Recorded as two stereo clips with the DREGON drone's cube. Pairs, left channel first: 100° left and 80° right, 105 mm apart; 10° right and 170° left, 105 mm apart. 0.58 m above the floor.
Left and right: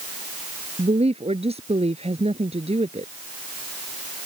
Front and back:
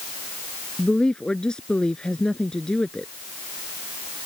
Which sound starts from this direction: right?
A woman speaking, at 0.8 s.